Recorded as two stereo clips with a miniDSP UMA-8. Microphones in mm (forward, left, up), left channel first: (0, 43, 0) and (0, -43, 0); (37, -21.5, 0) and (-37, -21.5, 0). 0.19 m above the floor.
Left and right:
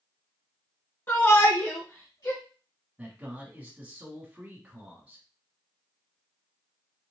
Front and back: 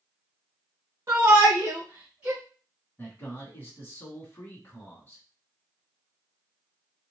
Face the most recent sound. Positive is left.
turn(degrees=-30)